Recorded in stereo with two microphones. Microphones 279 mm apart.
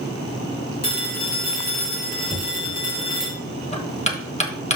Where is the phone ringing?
35° left (ahead or behind), 4 m.